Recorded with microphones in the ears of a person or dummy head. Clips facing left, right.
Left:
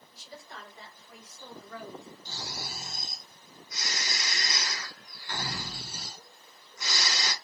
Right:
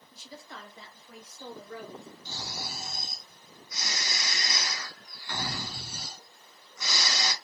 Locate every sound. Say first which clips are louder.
0.1 s a woman speaking: right 1 dB; 75° right (ahead or behind), 1.3 m; by 2.1 s 50° right (ahead or behind), 2.5 m
2.2 s snoring: right 2 dB; 80° right, 2.0 m